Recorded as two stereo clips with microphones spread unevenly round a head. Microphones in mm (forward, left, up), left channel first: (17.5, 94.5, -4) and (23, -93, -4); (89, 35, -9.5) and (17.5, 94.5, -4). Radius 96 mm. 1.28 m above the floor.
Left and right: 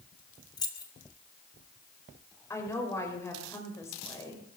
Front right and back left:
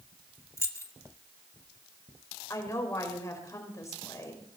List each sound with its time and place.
0.6 s keys jangling: 25° left, 1.6 m
2.5 s a woman speaking: 15° left, 5 m